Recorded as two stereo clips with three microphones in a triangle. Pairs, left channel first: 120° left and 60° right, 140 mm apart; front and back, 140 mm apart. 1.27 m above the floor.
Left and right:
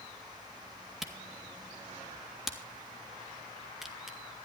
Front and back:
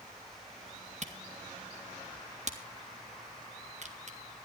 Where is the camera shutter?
145° right, 2.0 m.